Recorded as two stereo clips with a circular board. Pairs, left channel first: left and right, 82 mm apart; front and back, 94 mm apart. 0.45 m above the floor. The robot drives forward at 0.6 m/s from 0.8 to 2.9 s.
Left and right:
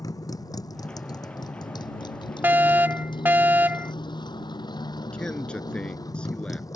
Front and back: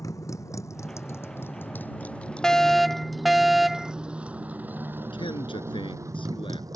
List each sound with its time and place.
0.0 s a motorcycle: 50° left; by 6.8 s 130° left
2.4 s a fire alarm: 75° right; by 3.9 s 90° right
5.1 s a man speaking: 15° left